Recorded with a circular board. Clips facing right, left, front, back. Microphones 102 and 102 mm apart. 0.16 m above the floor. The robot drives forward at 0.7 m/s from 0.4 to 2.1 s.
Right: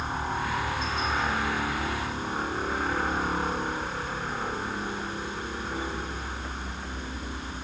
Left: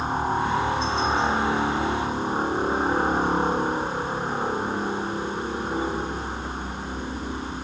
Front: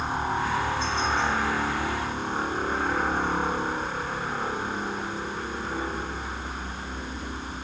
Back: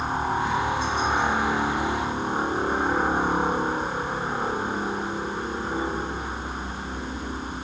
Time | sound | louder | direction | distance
0.0 | a helicopter | left 6 dB, back 2 dB | 110° left | ?